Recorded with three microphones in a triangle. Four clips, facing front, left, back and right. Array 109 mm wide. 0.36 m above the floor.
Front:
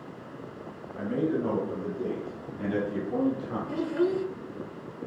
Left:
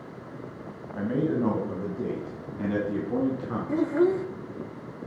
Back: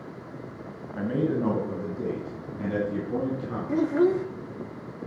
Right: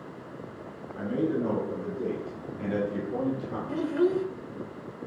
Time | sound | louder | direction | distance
0.9 | a man speaking | left 2 dB, back 2 dB | 135° left | 2 m
3.7 | a child speaking | left 2 dB, back 5 dB | 135° left | 0.7 m